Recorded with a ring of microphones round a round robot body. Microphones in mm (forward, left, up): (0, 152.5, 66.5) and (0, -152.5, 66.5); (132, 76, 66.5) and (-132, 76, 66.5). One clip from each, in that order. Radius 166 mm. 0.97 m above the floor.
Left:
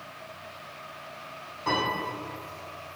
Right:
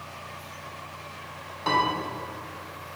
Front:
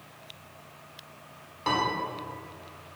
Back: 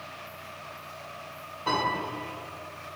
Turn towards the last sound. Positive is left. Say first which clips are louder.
# right 4 dB, front 1 dB
turn(degrees=-30)